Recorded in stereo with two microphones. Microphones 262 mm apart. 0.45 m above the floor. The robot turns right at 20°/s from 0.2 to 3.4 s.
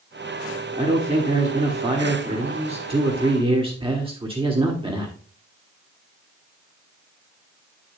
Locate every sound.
0.8 s a man speaking: 25° right (ahead or behind), 1.3 m; by 5.2 s 20° right (ahead or behind), 1.3 m